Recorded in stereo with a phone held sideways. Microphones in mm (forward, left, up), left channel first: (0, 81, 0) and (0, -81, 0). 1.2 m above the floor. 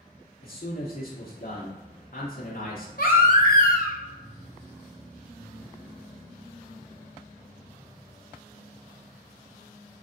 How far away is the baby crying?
About 0.6 m.